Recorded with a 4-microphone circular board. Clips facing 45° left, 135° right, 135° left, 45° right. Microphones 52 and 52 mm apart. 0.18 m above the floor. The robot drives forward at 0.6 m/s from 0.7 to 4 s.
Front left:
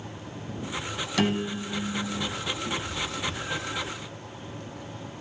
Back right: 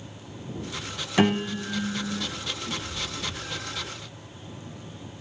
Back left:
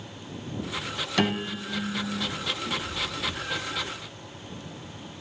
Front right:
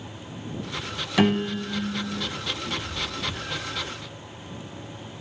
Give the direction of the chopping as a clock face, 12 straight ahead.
No chopping in this recording.